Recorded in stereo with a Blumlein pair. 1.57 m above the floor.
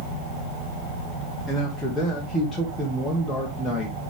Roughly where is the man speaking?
Ahead.